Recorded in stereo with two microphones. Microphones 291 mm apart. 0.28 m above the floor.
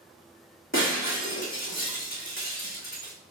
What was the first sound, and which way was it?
Breaking glass, 45° left (ahead or behind).